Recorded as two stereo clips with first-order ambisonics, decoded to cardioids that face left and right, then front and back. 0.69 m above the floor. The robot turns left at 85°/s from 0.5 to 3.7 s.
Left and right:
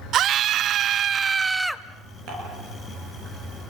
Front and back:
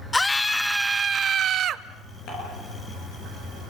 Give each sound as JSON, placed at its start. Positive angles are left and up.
{"t": 0.1, "sound": "a scream", "azimuth_deg": -80, "distance_m": 0.6}
{"t": 2.3, "sound": "dishes clattering", "azimuth_deg": -45, "distance_m": 8.0}